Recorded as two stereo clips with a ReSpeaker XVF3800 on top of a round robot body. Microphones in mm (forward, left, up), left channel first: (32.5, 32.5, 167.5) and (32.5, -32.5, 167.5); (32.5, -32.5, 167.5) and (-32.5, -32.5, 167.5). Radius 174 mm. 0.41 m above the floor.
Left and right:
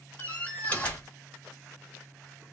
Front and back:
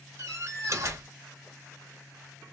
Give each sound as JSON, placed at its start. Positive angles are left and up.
{"t": 0.2, "sound": "a door slam", "azimuth_deg": 155, "distance_m": 1.7}